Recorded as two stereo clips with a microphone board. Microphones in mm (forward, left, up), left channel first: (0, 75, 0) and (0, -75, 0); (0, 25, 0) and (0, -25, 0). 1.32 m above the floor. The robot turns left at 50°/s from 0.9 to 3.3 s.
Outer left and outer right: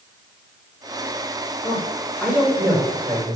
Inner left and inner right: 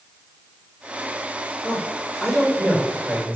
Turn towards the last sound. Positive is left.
turn(degrees=-55)  # may be behind; listen again after turning